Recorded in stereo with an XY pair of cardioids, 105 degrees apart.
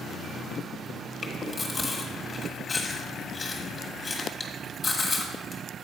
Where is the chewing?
25° left, 1.6 m.